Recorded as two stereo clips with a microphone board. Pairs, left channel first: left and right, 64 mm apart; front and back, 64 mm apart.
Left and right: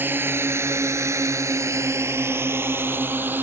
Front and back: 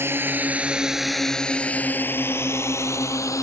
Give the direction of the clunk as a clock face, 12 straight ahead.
No clunk in this recording.